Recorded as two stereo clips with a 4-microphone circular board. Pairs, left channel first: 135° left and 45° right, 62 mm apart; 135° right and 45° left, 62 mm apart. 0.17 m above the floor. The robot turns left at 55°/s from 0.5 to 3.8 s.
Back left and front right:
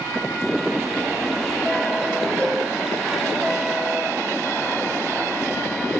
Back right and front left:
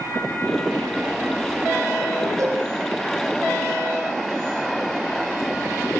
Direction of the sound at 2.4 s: 80° left.